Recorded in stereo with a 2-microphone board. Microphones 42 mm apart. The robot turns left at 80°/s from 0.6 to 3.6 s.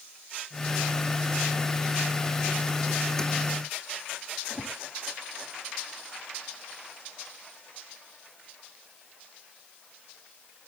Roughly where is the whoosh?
Centre.